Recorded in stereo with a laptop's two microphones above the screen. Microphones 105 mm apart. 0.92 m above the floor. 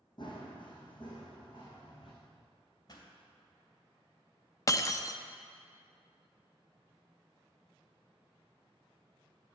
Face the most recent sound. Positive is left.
turn(degrees=35)  # may be behind; listen again after turning